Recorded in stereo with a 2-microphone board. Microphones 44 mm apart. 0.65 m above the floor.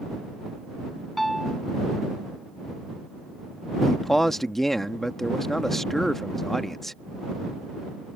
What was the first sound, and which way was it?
A piano, centre (ahead or behind).